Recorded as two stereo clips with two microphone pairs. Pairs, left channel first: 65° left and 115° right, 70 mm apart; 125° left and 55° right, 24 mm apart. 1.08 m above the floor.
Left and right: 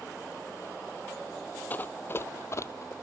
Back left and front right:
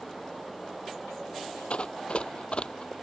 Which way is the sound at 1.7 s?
125° left.